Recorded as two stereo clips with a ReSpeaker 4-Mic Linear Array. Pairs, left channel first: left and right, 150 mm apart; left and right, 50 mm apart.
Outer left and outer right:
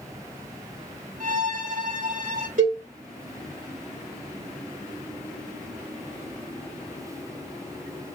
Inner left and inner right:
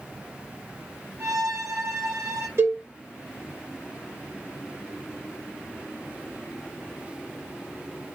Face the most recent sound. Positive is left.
turn(degrees=-55)  # may be behind; listen again after turning